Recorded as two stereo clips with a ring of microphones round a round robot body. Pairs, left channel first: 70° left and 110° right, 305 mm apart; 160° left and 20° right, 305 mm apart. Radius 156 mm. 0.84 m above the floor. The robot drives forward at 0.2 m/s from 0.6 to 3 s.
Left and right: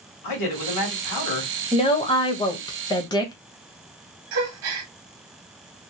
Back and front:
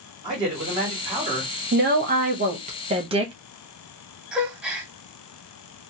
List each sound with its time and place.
0.2 s a man speaking: 50° left, 1.4 m; by 1.5 s 55° left, 1.3 m
1.7 s a woman speaking: 10° left, 0.9 m; by 3.3 s 15° left, 0.8 m
4.3 s a gasp: 110° right, 1.0 m